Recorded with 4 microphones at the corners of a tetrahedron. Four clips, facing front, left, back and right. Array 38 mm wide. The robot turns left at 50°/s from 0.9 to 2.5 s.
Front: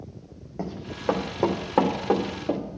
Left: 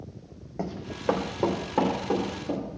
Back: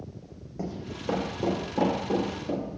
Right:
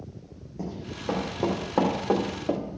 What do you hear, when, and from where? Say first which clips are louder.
0.6 s running footsteps: left 1 dB, front 2 dB; 50° left, 2.5 m; by 2.6 s 55° right, 4 m